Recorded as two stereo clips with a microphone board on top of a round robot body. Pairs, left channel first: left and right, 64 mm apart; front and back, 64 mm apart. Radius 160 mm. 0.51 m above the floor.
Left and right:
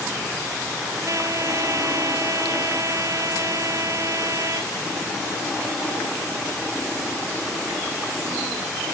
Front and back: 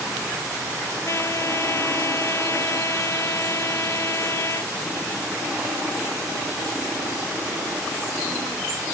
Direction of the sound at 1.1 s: 50° right.